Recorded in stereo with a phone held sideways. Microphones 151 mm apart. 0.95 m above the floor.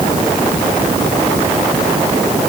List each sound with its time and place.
Only background noise.